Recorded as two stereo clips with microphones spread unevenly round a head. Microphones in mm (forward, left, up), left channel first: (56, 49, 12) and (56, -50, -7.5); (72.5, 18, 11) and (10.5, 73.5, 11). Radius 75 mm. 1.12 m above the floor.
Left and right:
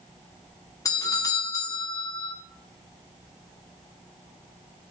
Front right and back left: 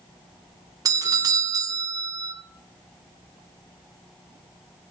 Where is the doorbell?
150° left, 0.5 m.